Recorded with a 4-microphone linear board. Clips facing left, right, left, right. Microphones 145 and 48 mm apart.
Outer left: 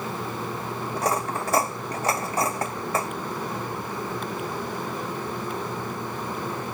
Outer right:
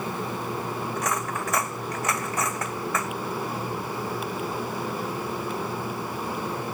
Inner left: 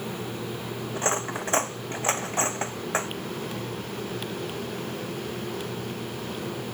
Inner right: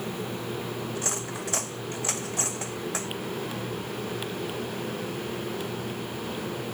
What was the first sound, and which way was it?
Cutlery clinking, 30° left (ahead or behind).